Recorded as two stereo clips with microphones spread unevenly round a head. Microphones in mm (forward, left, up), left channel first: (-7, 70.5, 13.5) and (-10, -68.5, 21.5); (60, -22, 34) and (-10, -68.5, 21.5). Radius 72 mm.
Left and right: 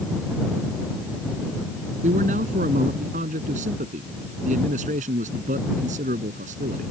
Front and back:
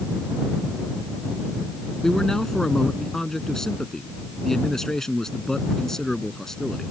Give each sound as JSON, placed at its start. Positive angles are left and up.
{"t": 2.0, "sound": "a man speaking", "azimuth_deg": -50}